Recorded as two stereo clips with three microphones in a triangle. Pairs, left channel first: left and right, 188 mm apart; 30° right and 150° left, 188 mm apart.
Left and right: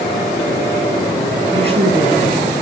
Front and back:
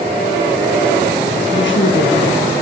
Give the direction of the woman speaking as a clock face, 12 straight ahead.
1 o'clock.